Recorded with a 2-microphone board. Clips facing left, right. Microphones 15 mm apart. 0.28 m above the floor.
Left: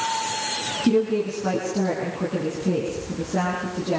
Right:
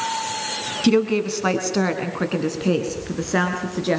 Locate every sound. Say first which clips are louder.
0.8 s a woman speaking: right 3 dB; 45° right (ahead or behind), 3 m; by 4.0 s 70° right (ahead or behind), 5 m